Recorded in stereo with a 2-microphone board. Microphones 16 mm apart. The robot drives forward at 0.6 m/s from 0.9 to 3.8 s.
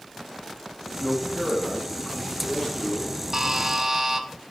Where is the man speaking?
50° left (ahead or behind), 6 m; by 3.2 s 40° left (ahead or behind), 7 m.